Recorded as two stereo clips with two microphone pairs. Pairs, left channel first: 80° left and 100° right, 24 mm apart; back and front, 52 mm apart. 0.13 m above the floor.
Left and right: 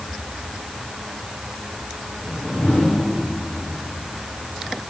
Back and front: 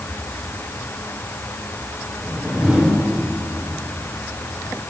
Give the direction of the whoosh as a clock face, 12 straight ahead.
10 o'clock.